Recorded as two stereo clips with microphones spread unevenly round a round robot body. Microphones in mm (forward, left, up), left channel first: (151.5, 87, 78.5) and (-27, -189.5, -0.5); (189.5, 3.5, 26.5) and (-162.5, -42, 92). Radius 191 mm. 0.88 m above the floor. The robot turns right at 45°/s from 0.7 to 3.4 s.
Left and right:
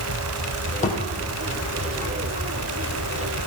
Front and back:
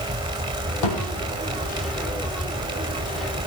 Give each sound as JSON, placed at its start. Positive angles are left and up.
{"t": 0.8, "sound": "a thud", "azimuth_deg": -10, "distance_m": 4.0}